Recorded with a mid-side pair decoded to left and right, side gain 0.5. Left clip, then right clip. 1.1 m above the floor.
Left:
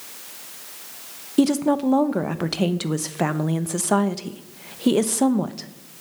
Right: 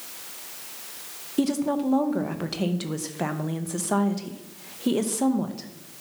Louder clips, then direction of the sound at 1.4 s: Left 5 dB; 35° left.